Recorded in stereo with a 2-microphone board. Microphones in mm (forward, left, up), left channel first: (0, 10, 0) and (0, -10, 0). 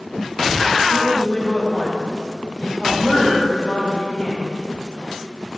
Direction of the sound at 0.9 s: 55° left (ahead or behind).